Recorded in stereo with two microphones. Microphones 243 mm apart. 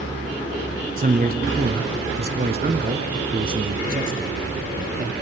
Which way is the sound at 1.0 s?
35° right (ahead or behind).